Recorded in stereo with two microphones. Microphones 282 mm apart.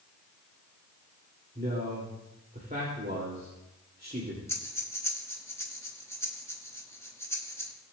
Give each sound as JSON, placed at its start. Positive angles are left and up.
{"t": 1.6, "sound": "a man speaking", "side_deg": -35, "distance_m": 2.0}
{"t": 4.5, "sound": "breathing", "side_deg": 10, "distance_m": 1.2}